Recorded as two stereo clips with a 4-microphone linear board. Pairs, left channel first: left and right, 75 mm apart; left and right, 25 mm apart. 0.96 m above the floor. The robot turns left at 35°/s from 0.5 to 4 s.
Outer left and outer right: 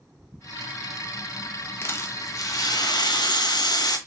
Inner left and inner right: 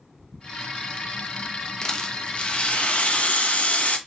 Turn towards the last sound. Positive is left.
turn(degrees=70)